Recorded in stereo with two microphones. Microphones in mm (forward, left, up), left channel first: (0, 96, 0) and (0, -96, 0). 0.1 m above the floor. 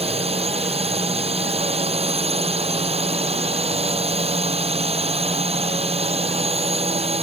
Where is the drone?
30° right (ahead or behind).